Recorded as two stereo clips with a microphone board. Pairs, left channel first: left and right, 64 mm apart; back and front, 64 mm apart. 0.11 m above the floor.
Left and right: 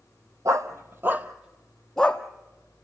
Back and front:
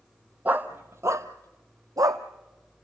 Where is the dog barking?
65° right, 1.4 m; by 2.2 s 15° left, 1.5 m.